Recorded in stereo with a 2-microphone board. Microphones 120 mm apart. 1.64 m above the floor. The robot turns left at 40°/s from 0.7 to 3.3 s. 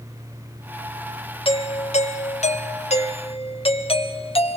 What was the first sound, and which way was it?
A doorbell, 130° left.